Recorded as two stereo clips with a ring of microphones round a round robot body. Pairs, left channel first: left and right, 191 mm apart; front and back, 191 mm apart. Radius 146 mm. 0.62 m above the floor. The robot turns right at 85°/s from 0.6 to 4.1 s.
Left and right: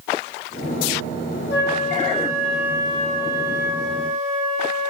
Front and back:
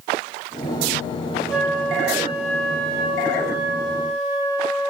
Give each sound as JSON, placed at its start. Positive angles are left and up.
{"t": 1.5, "sound": "a flute", "azimuth_deg": 90, "distance_m": 2.0}